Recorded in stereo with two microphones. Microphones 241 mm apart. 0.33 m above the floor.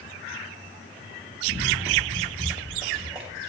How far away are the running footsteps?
About 3 m.